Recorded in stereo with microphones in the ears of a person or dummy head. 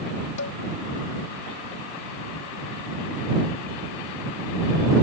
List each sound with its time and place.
0.4 s dishes clattering: 70° left (ahead or behind)